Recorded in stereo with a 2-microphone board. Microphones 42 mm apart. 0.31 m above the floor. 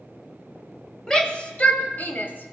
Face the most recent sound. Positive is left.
turn(degrees=55)  # may be behind; listen again after turning